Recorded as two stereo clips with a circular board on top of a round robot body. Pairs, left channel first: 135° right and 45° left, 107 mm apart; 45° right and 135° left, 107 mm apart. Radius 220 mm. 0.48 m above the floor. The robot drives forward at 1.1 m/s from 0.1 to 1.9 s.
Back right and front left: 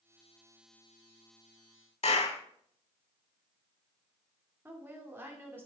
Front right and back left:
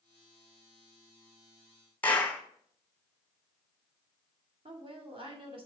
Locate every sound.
2.0 s a clap: 120° right, 1.3 m
4.7 s a woman speaking: 115° left, 2 m